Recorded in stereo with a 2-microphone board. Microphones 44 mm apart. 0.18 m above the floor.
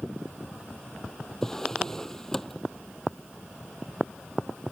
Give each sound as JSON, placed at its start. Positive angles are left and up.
{"t": 1.4, "sound": "a drawer", "side_deg": 10}